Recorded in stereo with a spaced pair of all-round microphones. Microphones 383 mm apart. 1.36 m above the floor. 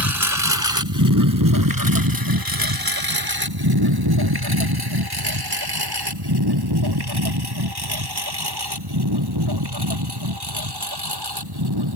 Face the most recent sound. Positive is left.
turn(degrees=-80)